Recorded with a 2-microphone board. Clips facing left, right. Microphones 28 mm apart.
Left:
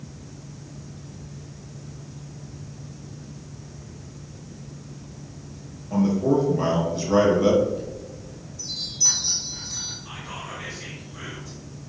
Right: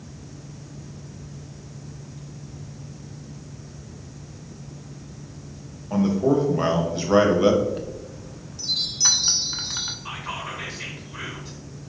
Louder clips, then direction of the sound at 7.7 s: Even; 80° right.